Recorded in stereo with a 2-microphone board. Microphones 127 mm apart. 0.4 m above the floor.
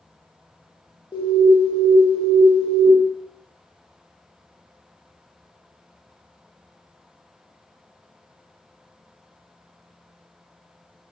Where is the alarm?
35° left (ahead or behind), 0.8 m.